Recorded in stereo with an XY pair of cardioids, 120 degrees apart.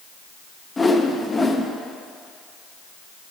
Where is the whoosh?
20° left, 0.6 m.